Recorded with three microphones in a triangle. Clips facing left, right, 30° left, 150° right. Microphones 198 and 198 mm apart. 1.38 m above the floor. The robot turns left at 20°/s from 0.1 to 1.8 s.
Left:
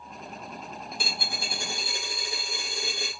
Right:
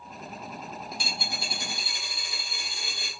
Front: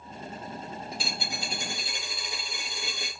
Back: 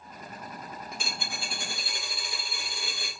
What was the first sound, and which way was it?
A dropped coin, 80° left.